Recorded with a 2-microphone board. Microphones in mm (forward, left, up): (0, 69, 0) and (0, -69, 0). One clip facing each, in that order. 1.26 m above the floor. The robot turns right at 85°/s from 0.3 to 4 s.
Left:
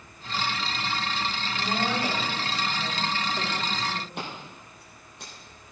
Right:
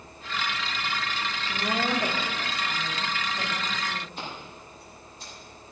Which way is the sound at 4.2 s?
70° left (ahead or behind).